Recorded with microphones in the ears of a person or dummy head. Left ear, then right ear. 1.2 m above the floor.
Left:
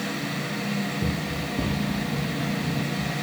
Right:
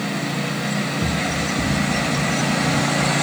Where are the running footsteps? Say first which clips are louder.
Right 7 dB; 25° left (ahead or behind), 7 m; by 3.1 s 45° left (ahead or behind), 8.5 m.